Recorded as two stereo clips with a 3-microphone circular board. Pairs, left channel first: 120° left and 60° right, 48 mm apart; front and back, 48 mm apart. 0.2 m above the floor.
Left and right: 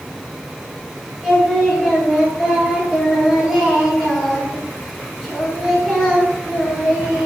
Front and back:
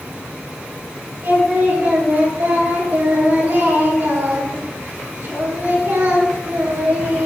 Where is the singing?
145° right, 3 m.